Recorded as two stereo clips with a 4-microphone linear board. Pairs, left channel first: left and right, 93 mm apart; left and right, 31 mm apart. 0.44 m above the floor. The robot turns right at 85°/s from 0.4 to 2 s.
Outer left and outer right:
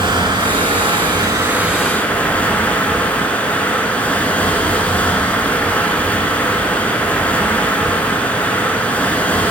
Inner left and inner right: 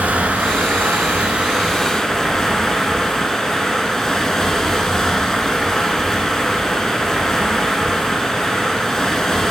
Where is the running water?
120° right, 0.8 m; by 9.5 s 15° left, 0.8 m.